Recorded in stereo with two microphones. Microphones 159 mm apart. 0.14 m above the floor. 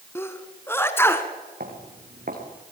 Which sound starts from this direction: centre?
A sneeze, at 0.1 s.